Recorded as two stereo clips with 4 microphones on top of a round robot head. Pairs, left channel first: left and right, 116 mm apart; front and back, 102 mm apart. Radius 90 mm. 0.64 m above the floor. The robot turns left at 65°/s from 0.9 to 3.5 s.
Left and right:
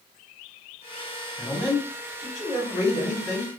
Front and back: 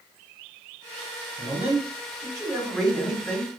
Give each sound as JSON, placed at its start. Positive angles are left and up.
{"t": 1.4, "sound": "a man speaking", "azimuth_deg": -175, "distance_m": 1.4}